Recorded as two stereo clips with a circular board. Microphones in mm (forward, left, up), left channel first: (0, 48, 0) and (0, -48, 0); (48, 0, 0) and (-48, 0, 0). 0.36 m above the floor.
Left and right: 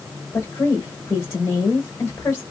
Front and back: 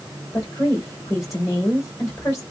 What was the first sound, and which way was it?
A woman speaking, 40° left.